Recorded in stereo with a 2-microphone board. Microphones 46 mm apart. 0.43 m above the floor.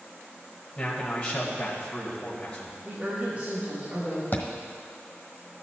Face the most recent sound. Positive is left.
turn(degrees=45)  # may be behind; listen again after turning